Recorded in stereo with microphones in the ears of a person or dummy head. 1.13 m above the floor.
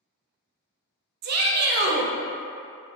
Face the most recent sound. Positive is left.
turn(degrees=-55)  # may be behind; listen again after turning